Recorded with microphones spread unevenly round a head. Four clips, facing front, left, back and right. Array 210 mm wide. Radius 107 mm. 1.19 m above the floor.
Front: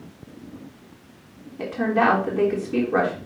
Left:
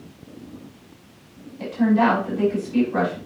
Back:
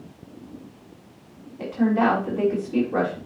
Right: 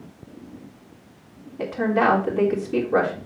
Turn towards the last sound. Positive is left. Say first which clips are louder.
# left 2 dB, even
turn(degrees=-35)